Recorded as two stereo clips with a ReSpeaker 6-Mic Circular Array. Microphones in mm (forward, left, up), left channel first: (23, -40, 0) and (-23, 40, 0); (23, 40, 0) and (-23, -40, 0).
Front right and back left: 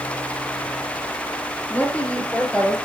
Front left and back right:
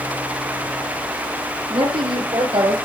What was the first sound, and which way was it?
A woman speaking, 130° right.